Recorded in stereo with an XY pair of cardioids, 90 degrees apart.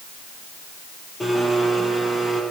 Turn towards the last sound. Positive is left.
turn(degrees=15)